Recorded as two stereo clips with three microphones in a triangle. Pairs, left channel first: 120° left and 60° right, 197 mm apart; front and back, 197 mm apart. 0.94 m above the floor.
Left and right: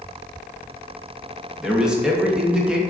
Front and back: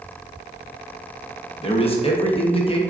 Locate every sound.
1.6 s a man speaking: 20° left, 0.6 m